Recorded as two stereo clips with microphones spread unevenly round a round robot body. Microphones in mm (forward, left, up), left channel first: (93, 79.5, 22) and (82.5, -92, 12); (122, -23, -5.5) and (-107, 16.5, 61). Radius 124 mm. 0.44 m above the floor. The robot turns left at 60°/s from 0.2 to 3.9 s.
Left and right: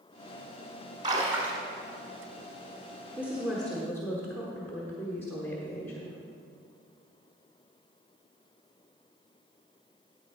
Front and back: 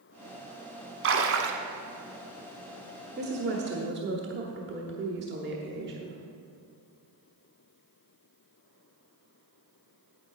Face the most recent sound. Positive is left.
turn(degrees=160)